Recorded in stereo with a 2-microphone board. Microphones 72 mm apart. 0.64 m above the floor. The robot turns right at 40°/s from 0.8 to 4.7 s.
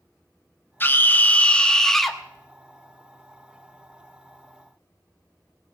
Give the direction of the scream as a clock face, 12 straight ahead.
8 o'clock.